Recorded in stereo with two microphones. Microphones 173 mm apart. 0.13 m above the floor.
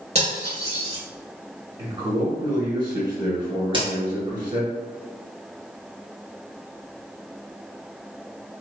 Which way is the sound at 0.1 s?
40° right (ahead or behind).